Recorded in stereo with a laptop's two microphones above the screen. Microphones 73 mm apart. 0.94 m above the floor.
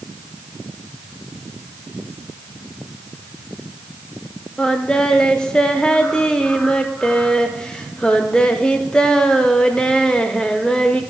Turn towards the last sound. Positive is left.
turn(degrees=15)  # may be behind; listen again after turning